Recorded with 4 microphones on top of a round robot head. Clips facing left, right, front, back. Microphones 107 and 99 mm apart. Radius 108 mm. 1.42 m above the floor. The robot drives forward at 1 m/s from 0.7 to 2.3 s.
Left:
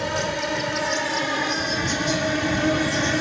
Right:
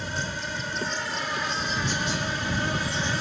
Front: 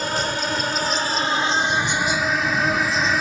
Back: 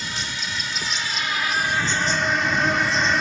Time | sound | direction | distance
0.0 | an insect | 45° left | ?